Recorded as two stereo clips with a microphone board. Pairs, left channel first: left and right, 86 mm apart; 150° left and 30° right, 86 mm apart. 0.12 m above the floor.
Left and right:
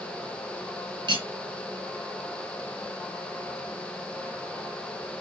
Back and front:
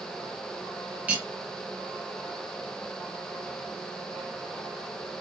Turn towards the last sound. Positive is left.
turn(degrees=-100)